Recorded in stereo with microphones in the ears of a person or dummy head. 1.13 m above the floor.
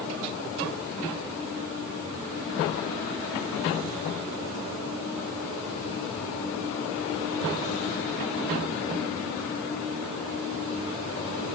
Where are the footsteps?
I don't hear footsteps.